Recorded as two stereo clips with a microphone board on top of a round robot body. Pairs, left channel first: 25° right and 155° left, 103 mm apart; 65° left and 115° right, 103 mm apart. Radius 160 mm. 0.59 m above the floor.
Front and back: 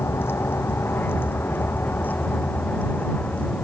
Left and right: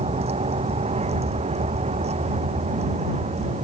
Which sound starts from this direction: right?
A vehicle, at 0.0 s.